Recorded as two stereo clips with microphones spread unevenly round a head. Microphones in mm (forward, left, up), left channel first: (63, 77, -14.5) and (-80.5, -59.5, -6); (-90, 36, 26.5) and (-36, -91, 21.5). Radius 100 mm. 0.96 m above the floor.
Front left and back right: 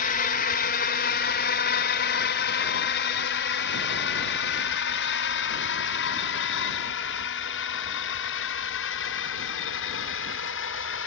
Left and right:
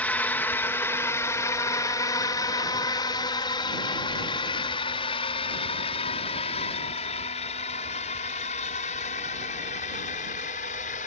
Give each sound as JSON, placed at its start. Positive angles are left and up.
{"t": 0.0, "sound": "a drone", "azimuth_deg": 35}